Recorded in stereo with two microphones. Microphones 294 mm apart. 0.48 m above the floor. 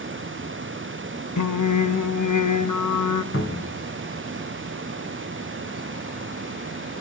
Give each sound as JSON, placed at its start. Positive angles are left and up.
{"t": 1.4, "sound": "singing", "side_deg": 80, "distance_m": 0.9}
{"t": 3.3, "sound": "a cupboard door", "side_deg": 45, "distance_m": 2.5}